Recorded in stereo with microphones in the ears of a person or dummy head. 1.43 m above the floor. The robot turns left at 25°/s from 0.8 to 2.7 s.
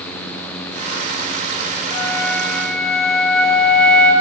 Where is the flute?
25° left (ahead or behind), 5 m; by 4.1 s 5° left (ahead or behind), 5 m.